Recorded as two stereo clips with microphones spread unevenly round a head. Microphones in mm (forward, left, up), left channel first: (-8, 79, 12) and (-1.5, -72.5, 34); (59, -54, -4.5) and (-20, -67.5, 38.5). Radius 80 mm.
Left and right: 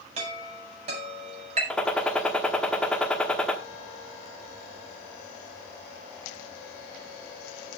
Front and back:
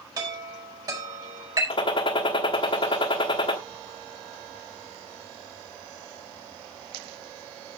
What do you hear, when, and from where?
0.2 s a chime: 135° right, 5 m
1.7 s a gunshot: 5° right, 1.1 m